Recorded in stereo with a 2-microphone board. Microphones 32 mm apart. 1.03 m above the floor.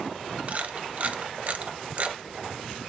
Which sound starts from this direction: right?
A camera shutter, at 0.5 s.